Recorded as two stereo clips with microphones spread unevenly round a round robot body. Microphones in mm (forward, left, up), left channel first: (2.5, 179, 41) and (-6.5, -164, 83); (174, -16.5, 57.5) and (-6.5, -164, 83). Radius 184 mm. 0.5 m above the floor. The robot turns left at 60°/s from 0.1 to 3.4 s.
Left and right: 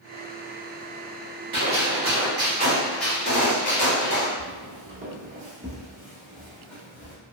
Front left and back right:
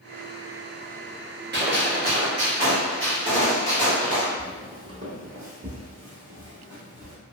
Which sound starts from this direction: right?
A gunshot, at 1.5 s.